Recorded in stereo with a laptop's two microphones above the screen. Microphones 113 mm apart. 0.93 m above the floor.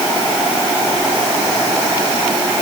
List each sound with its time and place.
Only background noise.